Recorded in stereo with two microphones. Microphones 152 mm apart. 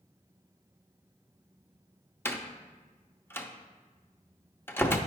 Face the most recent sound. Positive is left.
turn(degrees=15)  # may be behind; listen again after turning